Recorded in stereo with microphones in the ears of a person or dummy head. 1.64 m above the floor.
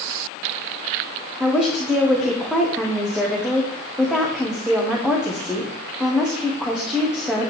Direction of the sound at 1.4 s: 5° right (ahead or behind).